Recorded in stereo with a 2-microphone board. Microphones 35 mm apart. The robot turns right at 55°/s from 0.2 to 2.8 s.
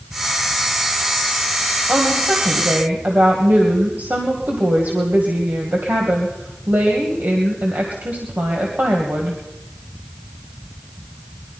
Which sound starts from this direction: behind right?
A woman speaking, at 1.9 s.